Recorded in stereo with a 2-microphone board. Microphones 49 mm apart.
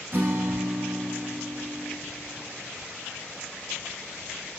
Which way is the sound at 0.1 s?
50° right (ahead or behind).